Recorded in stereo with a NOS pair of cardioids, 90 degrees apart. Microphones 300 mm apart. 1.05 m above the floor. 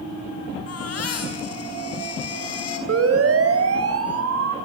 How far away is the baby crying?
About 6 m.